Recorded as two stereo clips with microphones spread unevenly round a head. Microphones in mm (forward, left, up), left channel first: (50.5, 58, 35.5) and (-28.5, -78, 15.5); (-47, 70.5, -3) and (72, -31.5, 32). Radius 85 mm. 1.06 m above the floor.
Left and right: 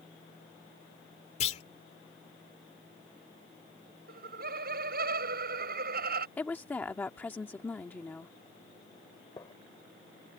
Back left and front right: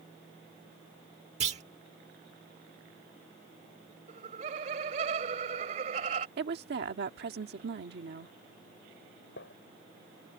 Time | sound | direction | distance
1.4 | a clunk | 10° left | ?
4.1 | laughter | 90° right | ?
6.4 | a woman speaking | 20° right | ?
9.4 | a gunshot | 130° left | ?